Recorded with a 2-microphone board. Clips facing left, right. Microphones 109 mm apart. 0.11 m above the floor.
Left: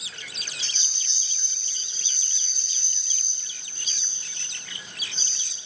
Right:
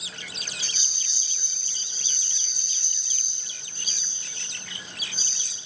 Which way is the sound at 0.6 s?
10° right (ahead or behind).